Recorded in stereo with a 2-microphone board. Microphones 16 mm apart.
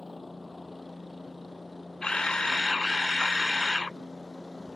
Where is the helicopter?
Centre (ahead or behind); by 4.8 s 5° left (ahead or behind).